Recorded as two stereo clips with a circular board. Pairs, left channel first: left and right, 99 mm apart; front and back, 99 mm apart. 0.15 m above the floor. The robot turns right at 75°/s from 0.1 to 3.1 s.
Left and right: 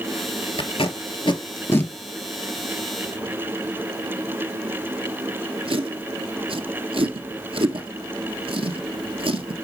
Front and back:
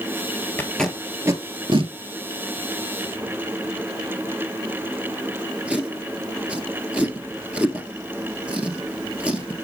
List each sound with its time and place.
0.6 s tape being pulled: 65° left, 1.2 m; by 9.6 s 105° right, 1.2 m